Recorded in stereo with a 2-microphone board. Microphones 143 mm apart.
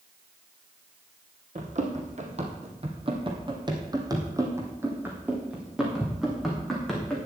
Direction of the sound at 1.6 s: 55° right (ahead or behind).